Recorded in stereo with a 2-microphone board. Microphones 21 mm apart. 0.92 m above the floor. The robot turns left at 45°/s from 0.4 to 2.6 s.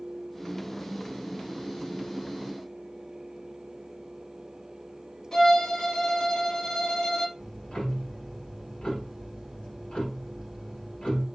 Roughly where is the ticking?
Left.